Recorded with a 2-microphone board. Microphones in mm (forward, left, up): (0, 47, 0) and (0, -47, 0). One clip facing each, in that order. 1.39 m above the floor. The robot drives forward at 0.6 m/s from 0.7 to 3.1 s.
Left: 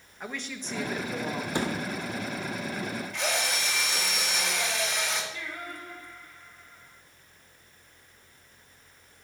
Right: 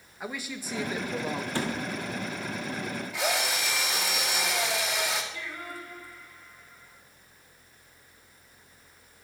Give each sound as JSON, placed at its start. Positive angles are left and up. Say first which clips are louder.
{"t": 0.2, "sound": "a man speaking", "louder": "right 1 dB", "side_deg": -5, "distance_m": 1.1}
{"t": 1.6, "sound": "a thud", "louder": "left 2 dB", "side_deg": 20, "distance_m": 1.8}
{"t": 3.1, "sound": "a drill", "louder": "right 3 dB", "side_deg": -5, "distance_m": 2.5}
{"t": 5.3, "sound": "singing", "louder": "even", "side_deg": 50, "distance_m": 4.0}